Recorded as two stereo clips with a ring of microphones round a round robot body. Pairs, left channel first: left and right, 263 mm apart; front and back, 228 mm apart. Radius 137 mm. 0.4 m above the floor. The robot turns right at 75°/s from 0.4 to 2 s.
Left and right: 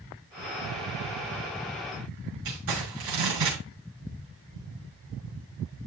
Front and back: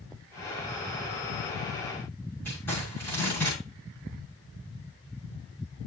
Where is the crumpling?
80° right, 6.5 m.